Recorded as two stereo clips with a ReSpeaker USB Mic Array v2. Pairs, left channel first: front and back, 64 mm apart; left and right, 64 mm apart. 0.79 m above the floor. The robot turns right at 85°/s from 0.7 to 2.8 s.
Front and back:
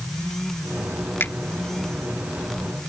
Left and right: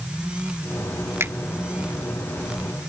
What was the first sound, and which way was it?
A finger snap, 50° right.